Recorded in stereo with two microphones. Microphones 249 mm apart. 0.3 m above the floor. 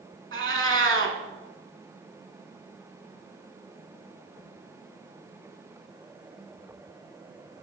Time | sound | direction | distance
0.3 | a cat meowing | 55° right (ahead or behind) | 0.8 m